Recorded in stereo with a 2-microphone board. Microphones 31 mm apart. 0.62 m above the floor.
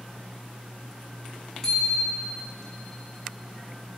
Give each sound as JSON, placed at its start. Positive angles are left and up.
{"t": 1.6, "sound": "a bicycle bell", "side_deg": 15, "distance_m": 4.5}